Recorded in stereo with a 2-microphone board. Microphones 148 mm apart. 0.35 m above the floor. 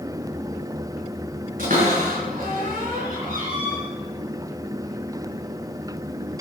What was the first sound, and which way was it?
A cupboard door, 70° right (ahead or behind).